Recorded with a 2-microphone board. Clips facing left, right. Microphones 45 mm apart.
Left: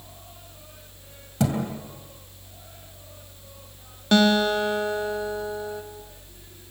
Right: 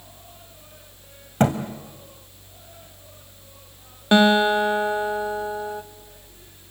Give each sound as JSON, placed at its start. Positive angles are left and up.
{"t": 1.4, "sound": "a thud", "side_deg": -45, "distance_m": 2.5}
{"t": 4.1, "sound": "a guitar", "side_deg": -20, "distance_m": 1.3}